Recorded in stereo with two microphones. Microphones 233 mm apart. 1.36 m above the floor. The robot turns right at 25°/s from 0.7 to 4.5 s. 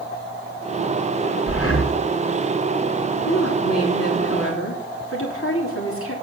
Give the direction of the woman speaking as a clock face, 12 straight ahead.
9 o'clock.